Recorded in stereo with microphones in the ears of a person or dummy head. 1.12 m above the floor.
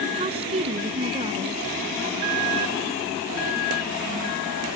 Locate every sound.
0.1 s a woman speaking: 30° right (ahead or behind)